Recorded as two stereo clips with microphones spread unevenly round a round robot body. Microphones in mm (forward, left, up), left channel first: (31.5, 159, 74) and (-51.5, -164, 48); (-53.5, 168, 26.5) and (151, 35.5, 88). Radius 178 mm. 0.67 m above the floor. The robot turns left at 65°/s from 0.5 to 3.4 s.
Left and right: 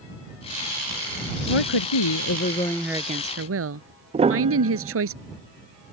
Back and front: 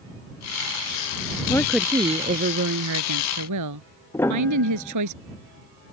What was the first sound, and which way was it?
A woman speaking, 70° left.